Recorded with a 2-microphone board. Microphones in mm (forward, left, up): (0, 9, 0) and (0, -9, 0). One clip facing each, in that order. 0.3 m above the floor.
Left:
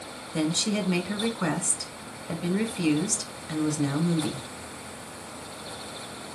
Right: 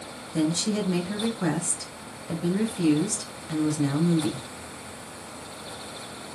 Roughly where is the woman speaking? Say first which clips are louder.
Right 1 dB; left.